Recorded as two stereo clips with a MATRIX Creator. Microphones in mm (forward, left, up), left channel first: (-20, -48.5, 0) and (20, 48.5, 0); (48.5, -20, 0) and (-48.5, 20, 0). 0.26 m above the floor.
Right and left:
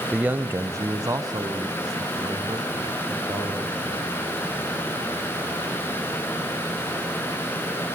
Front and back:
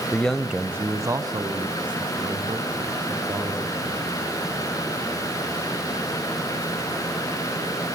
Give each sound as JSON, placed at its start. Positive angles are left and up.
{"t": 0.1, "sound": "a man speaking", "azimuth_deg": 10, "distance_m": 0.9}